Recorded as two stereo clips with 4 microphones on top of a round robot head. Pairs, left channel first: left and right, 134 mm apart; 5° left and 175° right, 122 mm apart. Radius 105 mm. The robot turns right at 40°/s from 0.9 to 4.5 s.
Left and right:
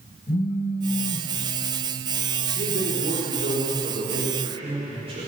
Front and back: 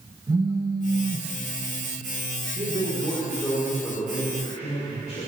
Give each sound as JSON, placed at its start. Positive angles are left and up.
{"t": 0.3, "sound": "a phone buzzing", "azimuth_deg": 125, "distance_m": 2.0}
{"t": 2.5, "sound": "a man speaking", "azimuth_deg": -125, "distance_m": 5.5}